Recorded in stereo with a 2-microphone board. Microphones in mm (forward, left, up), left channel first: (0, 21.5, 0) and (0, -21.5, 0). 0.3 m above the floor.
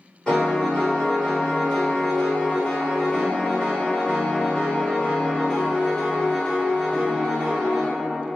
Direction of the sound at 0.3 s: 15° left (ahead or behind).